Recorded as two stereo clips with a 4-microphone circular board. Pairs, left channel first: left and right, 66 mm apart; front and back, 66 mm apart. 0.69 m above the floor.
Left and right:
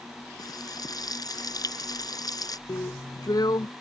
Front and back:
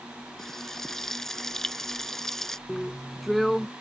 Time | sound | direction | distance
0.4 | frying | 85° left | ?
2.7 | a drill | 90° left | ?